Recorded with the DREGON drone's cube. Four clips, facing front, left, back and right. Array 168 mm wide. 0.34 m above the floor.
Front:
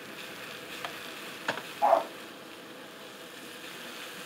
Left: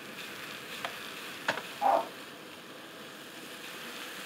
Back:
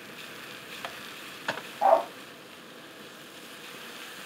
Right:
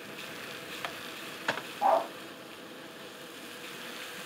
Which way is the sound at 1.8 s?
175° right.